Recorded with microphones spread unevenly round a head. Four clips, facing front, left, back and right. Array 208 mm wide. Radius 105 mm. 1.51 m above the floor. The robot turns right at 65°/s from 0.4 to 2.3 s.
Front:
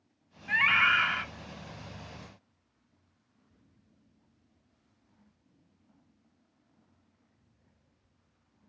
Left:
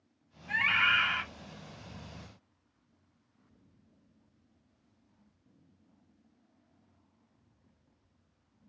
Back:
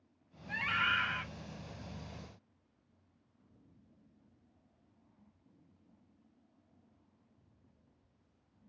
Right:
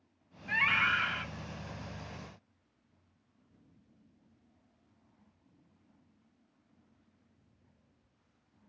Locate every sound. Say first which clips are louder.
0.5 s a scream: left 1 dB, front 8 dB; 25° right, 1.8 m; by 1.2 s 25° left, 1.8 m